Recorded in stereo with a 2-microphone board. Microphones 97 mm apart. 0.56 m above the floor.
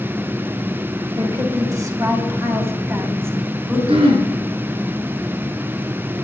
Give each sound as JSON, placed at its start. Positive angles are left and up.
{"t": 1.2, "sound": "a woman speaking", "side_deg": -45, "distance_m": 3.5}
{"t": 3.9, "sound": "throat clearing", "side_deg": -75, "distance_m": 4.0}